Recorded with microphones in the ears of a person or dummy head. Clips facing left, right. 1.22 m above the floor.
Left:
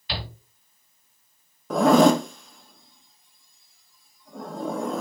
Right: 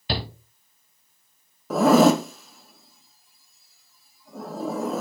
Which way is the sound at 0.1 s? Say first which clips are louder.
Right 6 dB; 40° right (ahead or behind).